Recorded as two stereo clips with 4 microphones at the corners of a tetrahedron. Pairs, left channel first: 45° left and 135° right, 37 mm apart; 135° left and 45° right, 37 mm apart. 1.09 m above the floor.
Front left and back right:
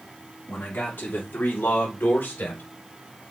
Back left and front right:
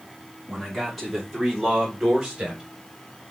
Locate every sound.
0.5 s a man speaking: 50° left, 3 m; by 2.6 s 20° left, 4 m